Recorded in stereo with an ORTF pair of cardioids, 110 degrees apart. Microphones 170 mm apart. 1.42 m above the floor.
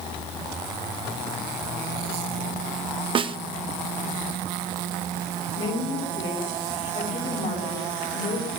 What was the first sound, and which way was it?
A snare drum, 30° right.